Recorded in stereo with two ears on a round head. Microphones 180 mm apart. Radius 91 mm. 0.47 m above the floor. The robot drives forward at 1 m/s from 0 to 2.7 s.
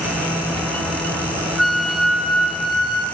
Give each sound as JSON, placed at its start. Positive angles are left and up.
{"t": 1.6, "sound": "a flute", "side_deg": 0, "distance_m": 0.5}